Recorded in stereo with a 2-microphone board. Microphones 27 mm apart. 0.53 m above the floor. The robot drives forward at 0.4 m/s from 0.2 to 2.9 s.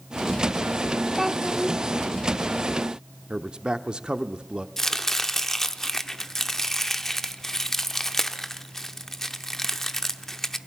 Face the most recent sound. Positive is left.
turn(degrees=10)  # may be behind; listen again after turning